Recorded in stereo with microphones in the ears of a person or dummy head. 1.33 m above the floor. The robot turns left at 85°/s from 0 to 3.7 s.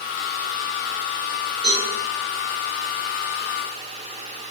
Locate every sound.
1.6 s a cowbell: 50° right (ahead or behind), 2.0 m; by 1.9 s 30° right (ahead or behind), 2.0 m